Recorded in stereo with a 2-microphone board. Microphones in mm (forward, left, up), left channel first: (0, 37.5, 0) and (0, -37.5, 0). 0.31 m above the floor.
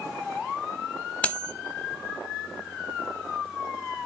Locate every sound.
1.2 s cutlery clinking: 15° left (ahead or behind), 0.9 m